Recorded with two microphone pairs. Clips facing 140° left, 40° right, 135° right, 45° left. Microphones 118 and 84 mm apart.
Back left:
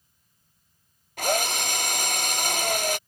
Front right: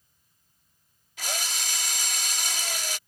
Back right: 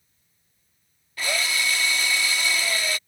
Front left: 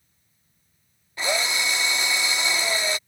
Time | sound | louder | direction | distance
1.2 | a drill | back left 10 dB, front left 2 dB | 110° left | ?